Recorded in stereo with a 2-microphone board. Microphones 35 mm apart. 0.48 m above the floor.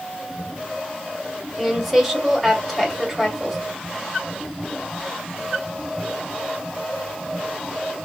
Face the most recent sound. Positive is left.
turn(degrees=-5)  # may be behind; listen again after turning